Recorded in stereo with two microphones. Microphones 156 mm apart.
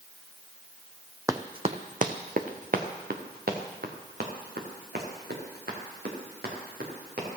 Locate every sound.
1.3 s running footsteps: 20° right (ahead or behind), 0.6 m; by 7.3 s 90° right, 4.5 m